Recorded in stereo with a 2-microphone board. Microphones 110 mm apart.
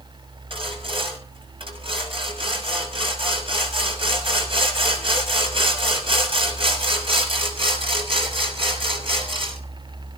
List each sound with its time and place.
0.5 s sawing: 55° right (ahead or behind), 6 m